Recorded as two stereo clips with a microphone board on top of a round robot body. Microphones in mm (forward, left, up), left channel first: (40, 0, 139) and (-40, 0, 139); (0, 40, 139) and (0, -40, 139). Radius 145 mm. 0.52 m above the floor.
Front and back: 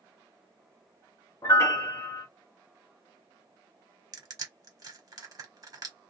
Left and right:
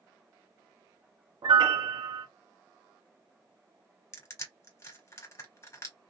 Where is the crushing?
145° left, 1.6 m.